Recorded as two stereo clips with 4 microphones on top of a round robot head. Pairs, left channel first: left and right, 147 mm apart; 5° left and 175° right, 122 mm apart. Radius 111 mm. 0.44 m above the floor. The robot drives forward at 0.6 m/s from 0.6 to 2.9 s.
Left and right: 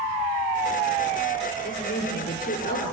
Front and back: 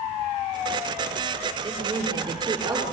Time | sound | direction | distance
1.6 | a woman speaking | 120° left | 8.5 m